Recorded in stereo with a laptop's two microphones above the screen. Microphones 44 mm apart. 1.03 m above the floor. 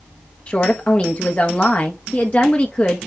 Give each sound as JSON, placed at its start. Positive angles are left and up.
{"t": 0.5, "sound": "a woman speaking", "side_deg": 35, "distance_m": 1.2}